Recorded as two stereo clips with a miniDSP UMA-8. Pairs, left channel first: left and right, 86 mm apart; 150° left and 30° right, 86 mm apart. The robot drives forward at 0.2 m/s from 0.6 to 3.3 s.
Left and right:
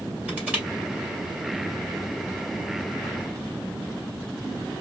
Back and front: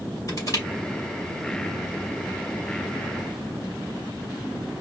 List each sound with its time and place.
0.3 s crushing: 160° right, 1.9 m